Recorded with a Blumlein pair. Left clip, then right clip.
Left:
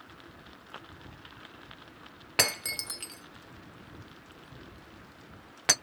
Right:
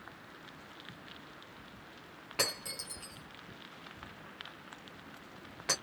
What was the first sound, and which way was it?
Breaking glass, 30° left.